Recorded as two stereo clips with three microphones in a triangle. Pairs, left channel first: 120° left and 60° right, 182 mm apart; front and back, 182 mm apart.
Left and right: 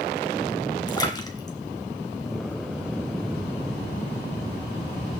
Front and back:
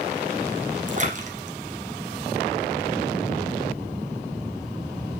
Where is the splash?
175° left, 1.7 m.